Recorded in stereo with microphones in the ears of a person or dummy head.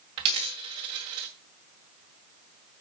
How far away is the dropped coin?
About 0.9 m.